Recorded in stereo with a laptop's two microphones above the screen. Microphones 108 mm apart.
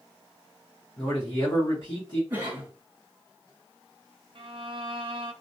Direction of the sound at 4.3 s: 50° right (ahead or behind).